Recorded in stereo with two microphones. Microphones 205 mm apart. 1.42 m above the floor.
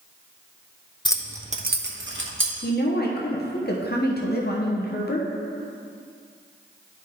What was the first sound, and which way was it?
Keys jangling, 20° left (ahead or behind).